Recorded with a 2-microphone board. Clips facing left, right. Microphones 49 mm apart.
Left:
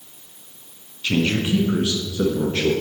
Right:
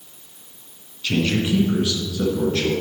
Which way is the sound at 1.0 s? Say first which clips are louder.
Even; 15° left (ahead or behind).